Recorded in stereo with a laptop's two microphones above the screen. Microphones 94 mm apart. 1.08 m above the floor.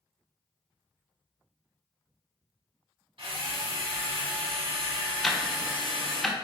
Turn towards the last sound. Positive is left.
turn(degrees=5)  # may be behind; listen again after turning